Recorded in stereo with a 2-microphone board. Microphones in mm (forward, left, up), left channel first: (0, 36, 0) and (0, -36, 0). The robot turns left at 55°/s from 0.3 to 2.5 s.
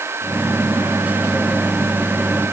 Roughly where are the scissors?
I don't hear scissors.